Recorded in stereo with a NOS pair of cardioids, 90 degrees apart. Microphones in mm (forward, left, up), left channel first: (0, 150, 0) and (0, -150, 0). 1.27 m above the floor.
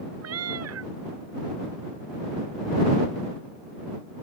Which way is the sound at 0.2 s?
55° right.